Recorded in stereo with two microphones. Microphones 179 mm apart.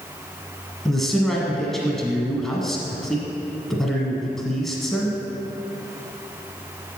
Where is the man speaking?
Centre (ahead or behind), 1.3 m.